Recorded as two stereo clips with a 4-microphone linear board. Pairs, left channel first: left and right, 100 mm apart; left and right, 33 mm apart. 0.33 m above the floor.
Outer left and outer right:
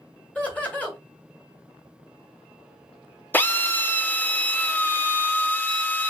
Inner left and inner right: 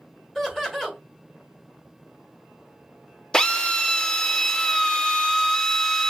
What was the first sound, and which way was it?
Laughter, 15° left (ahead or behind).